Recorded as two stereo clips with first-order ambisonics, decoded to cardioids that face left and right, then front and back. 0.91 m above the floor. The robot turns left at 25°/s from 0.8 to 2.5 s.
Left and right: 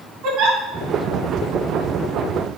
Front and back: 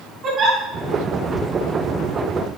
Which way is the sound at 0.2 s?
125° right.